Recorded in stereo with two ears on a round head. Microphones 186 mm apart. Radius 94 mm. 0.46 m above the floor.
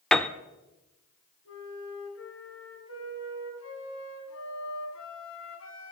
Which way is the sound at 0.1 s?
5° left (ahead or behind).